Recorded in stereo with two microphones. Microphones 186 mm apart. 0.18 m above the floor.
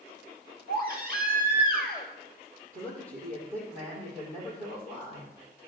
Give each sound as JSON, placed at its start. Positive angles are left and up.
{"t": 0.7, "sound": "a baby crying", "side_deg": -60, "distance_m": 2.0}
{"t": 2.7, "sound": "a man speaking", "side_deg": -55, "distance_m": 6.0}